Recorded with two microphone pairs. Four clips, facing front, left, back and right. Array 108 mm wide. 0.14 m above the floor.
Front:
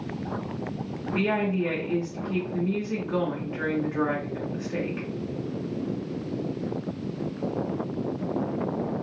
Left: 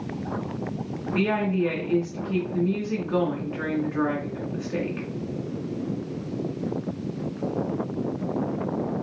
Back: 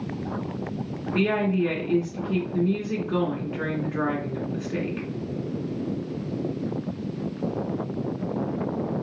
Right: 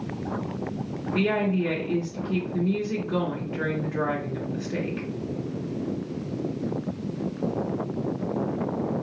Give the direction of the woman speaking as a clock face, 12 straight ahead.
9 o'clock.